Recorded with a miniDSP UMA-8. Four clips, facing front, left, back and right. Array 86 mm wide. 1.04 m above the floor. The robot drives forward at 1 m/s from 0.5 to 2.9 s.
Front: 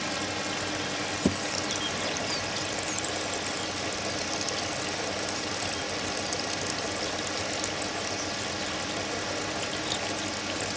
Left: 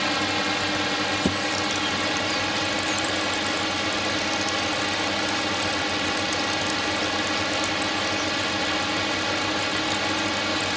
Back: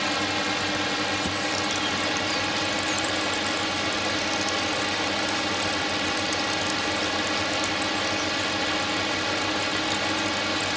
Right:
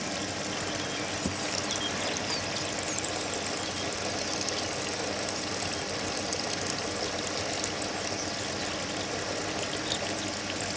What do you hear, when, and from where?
0.0 s a drone: 120° left; by 10.8 s 125° left
1.2 s a thud: 50° left